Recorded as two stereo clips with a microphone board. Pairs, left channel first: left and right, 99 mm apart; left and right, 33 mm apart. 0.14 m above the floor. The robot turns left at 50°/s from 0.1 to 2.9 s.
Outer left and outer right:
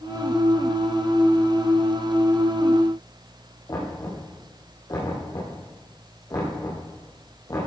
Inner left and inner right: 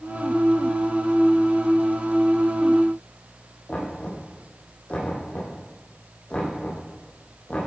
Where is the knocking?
40° left (ahead or behind), 5.5 m.